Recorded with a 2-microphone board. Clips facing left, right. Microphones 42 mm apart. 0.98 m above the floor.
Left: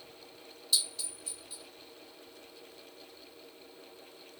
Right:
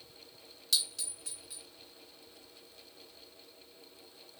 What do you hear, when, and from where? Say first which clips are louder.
0.7 s a clink: even; 80° right, 1.1 m